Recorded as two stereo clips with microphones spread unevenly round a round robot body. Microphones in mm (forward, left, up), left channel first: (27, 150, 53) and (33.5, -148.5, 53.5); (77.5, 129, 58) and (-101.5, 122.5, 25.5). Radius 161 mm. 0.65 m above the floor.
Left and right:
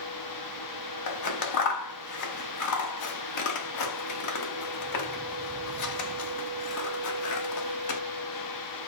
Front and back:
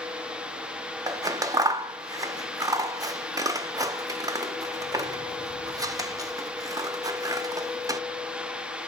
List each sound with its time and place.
1.1 s scissors: 115° left, 0.5 m